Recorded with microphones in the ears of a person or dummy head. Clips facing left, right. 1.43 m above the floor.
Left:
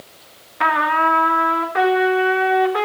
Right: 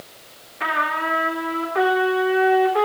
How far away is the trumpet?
About 1.7 m.